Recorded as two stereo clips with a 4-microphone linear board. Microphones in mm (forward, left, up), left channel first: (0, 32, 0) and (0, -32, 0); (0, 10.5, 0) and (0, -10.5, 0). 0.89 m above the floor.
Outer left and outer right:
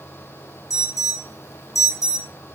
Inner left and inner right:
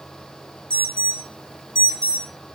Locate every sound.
0.7 s an alarm: 65° left (ahead or behind), 4 m